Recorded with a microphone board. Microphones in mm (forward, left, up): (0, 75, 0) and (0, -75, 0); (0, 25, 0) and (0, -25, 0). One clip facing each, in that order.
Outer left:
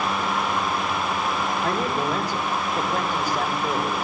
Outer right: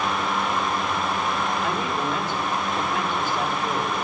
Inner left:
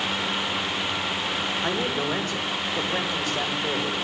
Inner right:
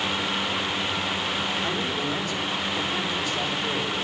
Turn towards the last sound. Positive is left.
turn(degrees=35)  # may be behind; listen again after turning